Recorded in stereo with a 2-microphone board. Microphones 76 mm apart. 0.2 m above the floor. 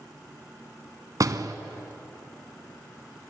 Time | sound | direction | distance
1.2 | a door slam | 50° right (ahead or behind) | 1.1 m